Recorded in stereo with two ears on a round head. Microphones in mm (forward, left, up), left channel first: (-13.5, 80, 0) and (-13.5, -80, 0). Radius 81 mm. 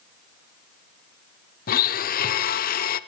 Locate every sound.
1.7 s a blender: 50° left (ahead or behind), 0.6 m